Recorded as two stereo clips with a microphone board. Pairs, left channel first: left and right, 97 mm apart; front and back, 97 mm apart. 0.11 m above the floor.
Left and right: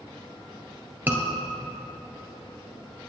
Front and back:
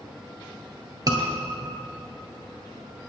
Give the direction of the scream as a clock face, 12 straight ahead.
5 o'clock.